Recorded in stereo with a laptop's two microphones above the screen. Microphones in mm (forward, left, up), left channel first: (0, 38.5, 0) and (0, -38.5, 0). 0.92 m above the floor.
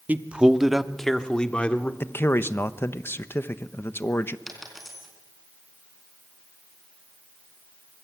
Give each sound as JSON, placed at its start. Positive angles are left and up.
{"t": 0.1, "sound": "a man speaking", "side_deg": -20, "distance_m": 1.5}
{"t": 2.0, "sound": "a man speaking", "side_deg": 30, "distance_m": 1.0}
{"t": 4.5, "sound": "a dropped coin", "side_deg": 0, "distance_m": 4.0}